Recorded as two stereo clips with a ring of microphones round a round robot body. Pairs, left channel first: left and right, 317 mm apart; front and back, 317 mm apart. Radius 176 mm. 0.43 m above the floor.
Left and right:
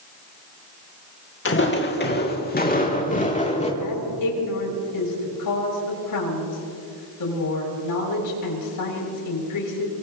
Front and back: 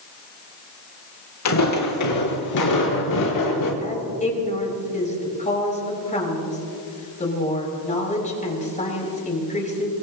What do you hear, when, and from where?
1.4 s footsteps: 35° left, 3 m; by 3.7 s 20° left, 4 m
3.8 s a woman speaking: 70° left, 6.5 m